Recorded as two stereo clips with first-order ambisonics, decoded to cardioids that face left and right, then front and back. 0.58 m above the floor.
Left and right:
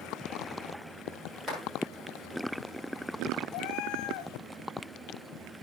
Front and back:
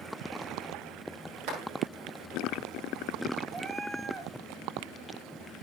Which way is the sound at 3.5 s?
110° left.